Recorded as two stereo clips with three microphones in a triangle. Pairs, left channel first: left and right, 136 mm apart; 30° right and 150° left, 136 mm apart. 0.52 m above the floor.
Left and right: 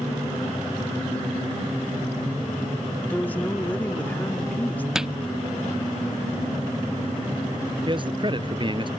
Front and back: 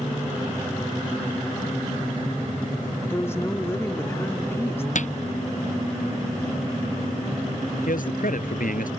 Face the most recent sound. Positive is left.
turn(degrees=-35)